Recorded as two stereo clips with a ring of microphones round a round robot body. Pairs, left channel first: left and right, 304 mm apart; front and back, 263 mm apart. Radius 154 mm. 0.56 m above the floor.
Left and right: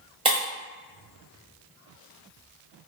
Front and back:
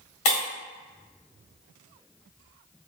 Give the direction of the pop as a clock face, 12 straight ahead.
No pop in this recording.